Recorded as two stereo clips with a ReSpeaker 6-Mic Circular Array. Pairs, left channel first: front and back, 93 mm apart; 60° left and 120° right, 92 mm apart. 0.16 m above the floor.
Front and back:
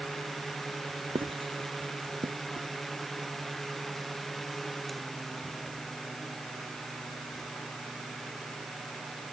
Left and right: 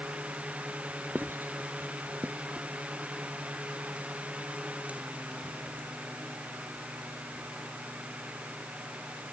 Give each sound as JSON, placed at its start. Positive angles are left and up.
{"t": 1.1, "sound": "writing", "azimuth_deg": 175}